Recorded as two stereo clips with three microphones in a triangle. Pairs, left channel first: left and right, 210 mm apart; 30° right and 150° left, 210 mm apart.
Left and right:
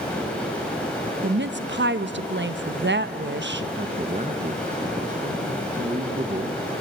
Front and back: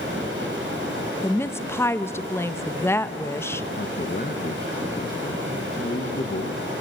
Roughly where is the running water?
Behind.